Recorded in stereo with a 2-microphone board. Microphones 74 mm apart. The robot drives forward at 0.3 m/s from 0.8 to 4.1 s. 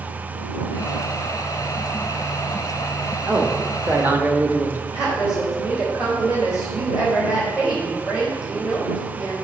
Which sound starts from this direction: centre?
A woman speaking, at 4.9 s.